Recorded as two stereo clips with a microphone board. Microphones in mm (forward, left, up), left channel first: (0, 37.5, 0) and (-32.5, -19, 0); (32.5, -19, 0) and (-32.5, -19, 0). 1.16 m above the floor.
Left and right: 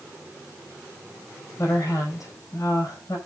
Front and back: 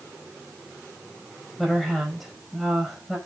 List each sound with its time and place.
1.6 s a woman speaking: 90° left, 5.5 m